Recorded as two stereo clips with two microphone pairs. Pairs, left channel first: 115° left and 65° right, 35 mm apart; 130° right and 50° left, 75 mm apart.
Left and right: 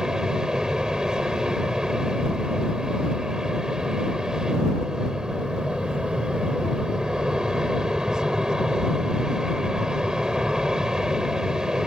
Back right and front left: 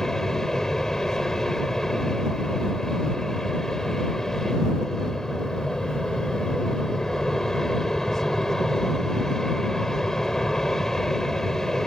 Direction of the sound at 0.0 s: 55° right.